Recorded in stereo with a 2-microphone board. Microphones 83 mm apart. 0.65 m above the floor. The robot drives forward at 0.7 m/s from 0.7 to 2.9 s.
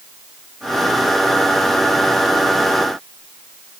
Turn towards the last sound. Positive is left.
No sound to turn to.